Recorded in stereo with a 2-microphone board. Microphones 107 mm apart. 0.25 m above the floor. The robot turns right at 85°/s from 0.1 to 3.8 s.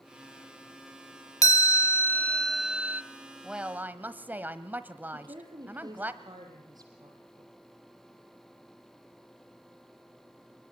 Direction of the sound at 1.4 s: 80° left.